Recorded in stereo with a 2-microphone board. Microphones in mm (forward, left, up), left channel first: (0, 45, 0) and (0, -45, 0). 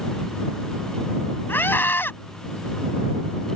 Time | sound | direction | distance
1.5 | a scream | 20° left (ahead or behind) | ?